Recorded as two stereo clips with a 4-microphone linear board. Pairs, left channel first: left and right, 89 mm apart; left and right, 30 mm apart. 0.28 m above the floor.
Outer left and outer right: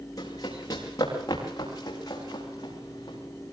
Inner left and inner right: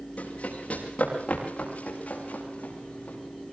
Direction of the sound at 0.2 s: 40° left (ahead or behind).